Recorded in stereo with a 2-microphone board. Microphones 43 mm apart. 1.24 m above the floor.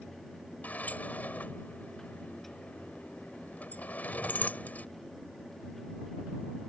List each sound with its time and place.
0.6 s a sliding door: 40° left (ahead or behind)